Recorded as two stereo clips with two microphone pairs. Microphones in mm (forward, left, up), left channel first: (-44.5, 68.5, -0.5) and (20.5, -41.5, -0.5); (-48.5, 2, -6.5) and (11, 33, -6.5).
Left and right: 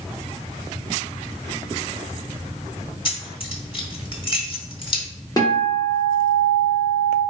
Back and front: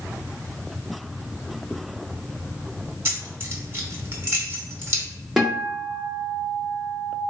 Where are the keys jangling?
80° left, 1.1 m.